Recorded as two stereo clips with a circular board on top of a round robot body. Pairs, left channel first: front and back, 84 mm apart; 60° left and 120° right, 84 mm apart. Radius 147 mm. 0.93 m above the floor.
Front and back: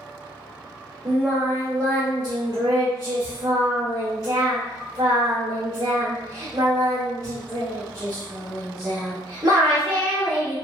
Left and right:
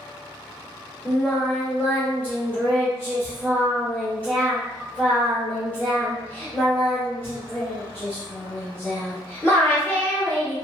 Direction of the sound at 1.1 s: 130° left.